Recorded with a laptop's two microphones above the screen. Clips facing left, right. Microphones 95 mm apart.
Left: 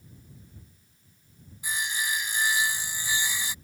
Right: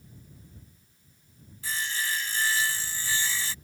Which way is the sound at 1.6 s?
15° left (ahead or behind).